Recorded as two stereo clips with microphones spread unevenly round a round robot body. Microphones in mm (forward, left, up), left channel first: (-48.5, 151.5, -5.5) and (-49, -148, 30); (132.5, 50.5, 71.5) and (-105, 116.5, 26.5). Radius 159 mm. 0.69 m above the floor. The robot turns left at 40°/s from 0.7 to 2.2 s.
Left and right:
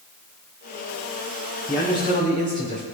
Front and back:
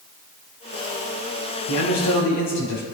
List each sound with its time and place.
1.7 s a man speaking: straight ahead, 5 m; by 2.8 s 20° right, 5 m